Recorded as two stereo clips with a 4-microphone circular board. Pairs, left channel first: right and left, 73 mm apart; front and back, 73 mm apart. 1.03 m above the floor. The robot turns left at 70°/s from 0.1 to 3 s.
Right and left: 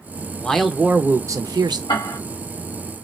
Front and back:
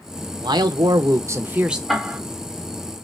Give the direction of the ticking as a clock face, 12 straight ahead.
3 o'clock.